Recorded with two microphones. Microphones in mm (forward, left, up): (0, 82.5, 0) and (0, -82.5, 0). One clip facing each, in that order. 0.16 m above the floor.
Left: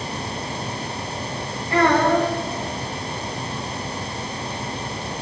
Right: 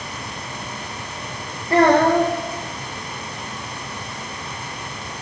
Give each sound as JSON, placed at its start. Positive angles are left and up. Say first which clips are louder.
{"t": 1.7, "sound": "a child speaking", "louder": "right 3 dB", "side_deg": -40, "distance_m": 6.0}